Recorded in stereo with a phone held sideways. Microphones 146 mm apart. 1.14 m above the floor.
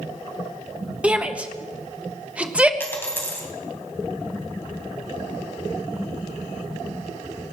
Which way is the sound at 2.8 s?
15° left (ahead or behind).